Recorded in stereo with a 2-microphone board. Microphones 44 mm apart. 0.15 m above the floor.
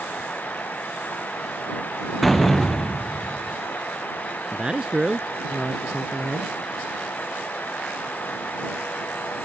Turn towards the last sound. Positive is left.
turn(degrees=-20)  # may be behind; listen again after turning